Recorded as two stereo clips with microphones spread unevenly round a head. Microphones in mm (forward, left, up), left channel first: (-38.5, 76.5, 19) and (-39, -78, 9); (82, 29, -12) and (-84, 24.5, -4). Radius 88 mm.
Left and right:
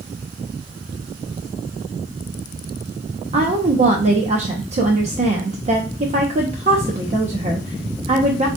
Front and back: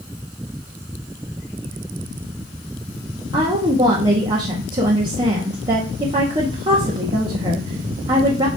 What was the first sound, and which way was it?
A woman speaking, 115° right.